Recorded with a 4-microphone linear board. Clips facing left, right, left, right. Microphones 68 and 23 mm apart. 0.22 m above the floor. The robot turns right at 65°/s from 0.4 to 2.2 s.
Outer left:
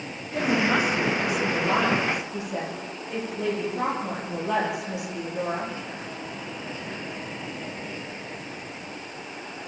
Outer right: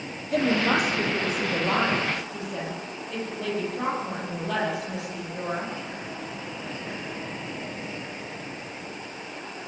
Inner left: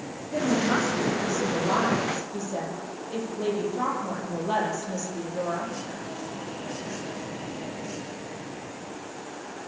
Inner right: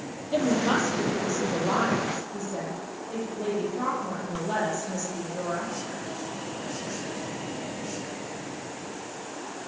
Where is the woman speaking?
100° right, 7.5 m; by 5.7 s 15° left, 7.5 m.